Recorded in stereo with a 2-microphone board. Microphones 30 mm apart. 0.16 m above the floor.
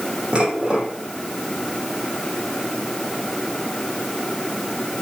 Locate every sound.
0.3 s dishes clattering: 35° right (ahead or behind), 5.5 m